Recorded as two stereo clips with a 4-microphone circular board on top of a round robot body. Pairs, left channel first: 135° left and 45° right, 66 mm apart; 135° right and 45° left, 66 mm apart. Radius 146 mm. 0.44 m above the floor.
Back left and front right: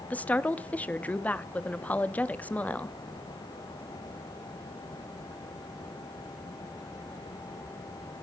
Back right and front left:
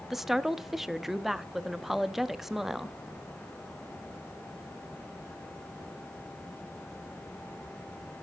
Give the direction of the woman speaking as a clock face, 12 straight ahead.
8 o'clock.